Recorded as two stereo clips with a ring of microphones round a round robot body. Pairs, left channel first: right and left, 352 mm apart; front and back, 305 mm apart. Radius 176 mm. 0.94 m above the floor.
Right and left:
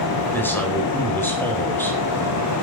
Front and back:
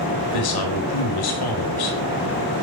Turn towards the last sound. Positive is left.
turn(degrees=-5)